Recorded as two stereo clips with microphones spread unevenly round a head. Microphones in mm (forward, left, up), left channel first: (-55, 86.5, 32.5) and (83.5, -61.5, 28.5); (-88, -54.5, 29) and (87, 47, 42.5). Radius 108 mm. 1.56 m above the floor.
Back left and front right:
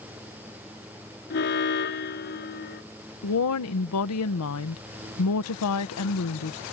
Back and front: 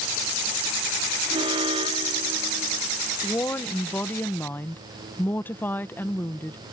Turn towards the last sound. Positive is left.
turn(degrees=130)